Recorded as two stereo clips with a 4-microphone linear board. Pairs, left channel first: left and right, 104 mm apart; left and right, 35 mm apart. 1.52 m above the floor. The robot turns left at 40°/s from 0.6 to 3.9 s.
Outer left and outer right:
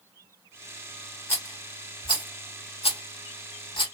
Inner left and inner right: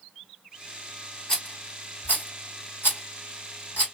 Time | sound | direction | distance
1.3 | a rattle | 25° left (ahead or behind) | 1.9 m